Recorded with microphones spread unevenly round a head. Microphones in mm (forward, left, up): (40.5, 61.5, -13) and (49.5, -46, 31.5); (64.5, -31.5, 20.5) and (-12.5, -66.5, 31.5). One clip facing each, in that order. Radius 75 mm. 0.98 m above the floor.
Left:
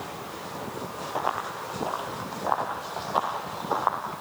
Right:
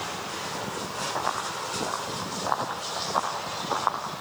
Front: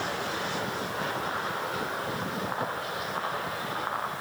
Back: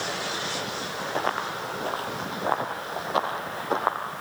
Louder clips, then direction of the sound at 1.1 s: Left 2 dB, back 3 dB; 175° right.